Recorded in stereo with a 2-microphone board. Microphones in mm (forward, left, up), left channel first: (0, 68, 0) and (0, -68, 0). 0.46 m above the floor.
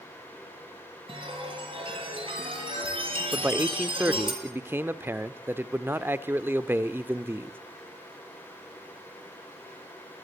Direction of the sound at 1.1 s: 40° right (ahead or behind).